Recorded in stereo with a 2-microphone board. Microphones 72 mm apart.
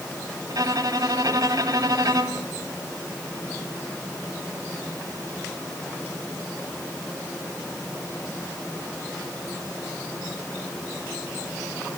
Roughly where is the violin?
Right.